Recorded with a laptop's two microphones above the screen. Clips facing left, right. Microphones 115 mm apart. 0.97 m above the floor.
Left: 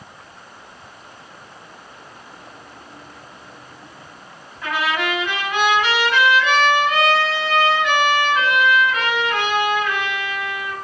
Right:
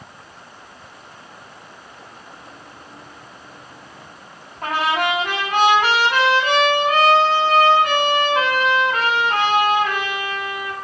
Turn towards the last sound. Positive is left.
turn(degrees=-45)  # may be behind; listen again after turning